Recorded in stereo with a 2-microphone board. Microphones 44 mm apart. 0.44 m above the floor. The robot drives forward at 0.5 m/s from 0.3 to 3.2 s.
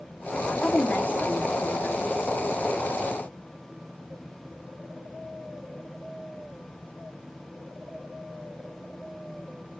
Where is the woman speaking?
35° left (ahead or behind), 1.5 m.